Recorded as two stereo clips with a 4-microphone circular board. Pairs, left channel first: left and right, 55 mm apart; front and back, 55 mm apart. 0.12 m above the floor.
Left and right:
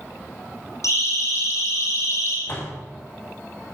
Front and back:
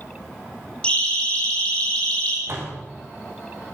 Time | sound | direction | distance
0.8 | a siren | 70° left | 9 m
2.5 | a door slam | 135° left | 7 m